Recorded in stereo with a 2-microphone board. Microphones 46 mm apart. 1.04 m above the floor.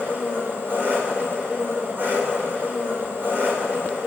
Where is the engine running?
50° right (ahead or behind), 2.5 m.